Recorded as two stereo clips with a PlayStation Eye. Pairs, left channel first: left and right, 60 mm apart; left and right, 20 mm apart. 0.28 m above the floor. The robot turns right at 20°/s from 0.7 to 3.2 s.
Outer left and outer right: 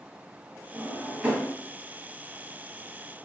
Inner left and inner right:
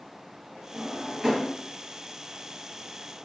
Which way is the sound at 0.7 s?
30° right (ahead or behind).